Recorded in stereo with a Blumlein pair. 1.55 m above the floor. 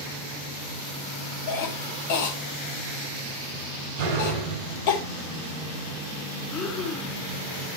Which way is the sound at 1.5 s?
50° left.